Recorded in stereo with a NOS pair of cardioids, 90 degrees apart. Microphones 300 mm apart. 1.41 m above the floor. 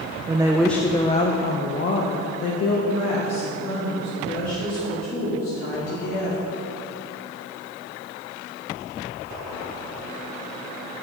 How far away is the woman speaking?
About 0.7 m.